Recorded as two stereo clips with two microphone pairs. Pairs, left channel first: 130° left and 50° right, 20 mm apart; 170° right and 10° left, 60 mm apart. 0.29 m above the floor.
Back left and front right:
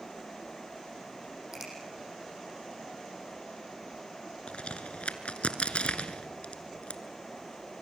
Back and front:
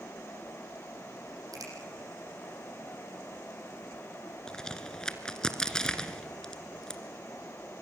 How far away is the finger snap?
About 9 m.